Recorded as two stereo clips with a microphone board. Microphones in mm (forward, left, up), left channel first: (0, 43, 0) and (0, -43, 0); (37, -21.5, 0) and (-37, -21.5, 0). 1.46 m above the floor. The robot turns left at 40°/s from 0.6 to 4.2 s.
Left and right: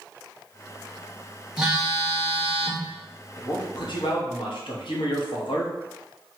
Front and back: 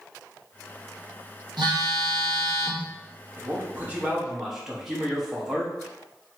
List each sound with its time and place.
1.6 s a phone buzzing: 170° right, 1.1 m; by 2.9 s 135° left, 1.1 m
3.4 s a man speaking: 130° left, 1.1 m; by 5.7 s 95° left, 1.1 m